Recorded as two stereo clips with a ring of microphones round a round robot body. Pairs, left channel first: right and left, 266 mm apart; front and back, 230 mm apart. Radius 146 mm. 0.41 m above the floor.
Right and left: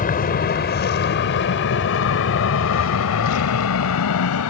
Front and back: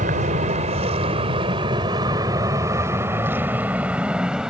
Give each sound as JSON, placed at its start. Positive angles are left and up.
{"t": 0.0, "sound": "an aircraft", "azimuth_deg": -135}